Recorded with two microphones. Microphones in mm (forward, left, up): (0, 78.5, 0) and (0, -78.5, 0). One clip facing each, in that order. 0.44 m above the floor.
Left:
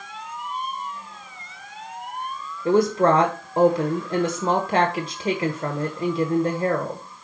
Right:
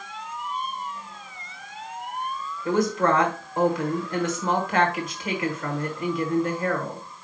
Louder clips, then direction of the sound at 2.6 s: Left 4 dB; 35° left (ahead or behind).